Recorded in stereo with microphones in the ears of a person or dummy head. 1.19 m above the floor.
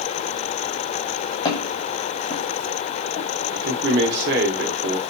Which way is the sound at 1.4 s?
30° left (ahead or behind).